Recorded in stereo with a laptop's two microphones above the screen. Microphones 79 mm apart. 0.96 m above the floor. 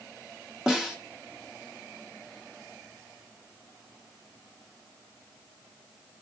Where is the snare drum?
15° right (ahead or behind), 1.2 m.